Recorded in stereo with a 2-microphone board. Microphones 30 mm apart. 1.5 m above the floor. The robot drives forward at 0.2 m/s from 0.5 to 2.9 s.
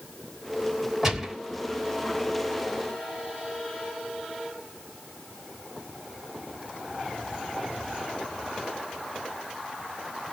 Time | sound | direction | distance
1.0 | a gunshot | 10° right (ahead or behind) | 1.4 m